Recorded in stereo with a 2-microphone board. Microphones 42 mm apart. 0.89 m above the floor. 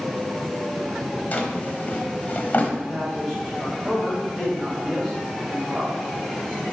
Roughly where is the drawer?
Left.